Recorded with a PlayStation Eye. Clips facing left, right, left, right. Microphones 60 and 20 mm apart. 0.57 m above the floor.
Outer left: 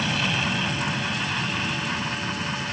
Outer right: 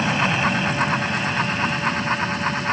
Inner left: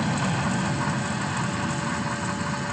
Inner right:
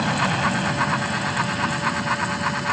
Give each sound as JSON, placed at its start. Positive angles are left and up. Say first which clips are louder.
{"t": 0.0, "sound": "an aircraft", "louder": "outer right 5 dB, inner right 5 dB", "side_deg": -25}